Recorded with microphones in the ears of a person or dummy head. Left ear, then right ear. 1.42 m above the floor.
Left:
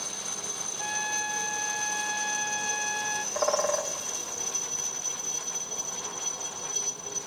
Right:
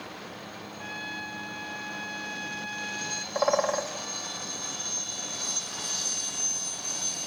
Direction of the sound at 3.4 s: 10° right (ahead or behind).